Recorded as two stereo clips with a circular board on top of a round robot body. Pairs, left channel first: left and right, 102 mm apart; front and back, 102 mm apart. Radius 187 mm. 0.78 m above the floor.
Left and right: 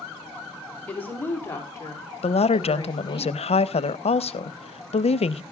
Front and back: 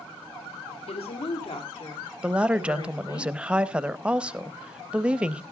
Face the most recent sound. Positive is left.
turn(degrees=100)